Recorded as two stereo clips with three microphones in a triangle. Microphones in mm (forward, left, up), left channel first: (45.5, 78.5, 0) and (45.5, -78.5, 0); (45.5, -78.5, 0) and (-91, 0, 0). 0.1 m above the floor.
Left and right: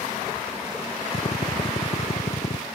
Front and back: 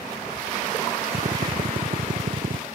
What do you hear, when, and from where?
1.1 s a drill: 130° left